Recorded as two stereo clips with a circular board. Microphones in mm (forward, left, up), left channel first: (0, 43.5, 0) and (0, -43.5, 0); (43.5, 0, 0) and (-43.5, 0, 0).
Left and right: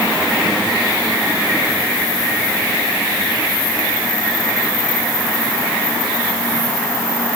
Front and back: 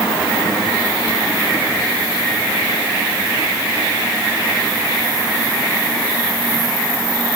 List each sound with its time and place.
Only background noise.